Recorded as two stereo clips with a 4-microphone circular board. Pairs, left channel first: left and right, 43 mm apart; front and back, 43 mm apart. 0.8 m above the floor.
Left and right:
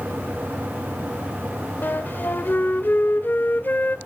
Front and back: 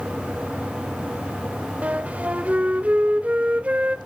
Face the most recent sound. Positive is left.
turn(degrees=125)